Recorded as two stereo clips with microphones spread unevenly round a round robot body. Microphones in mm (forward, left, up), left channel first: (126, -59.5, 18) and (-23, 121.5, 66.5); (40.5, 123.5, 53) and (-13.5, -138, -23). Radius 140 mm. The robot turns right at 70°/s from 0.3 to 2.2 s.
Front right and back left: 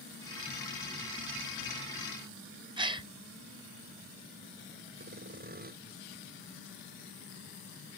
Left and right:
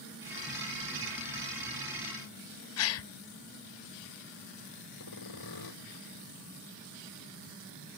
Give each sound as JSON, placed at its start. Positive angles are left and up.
{"t": 2.8, "sound": "a gasp", "azimuth_deg": 65}
{"t": 5.0, "sound": "sawing", "azimuth_deg": 80}